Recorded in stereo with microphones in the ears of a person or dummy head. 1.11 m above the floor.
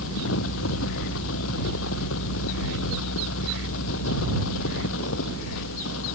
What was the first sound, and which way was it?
A fan, 85° left.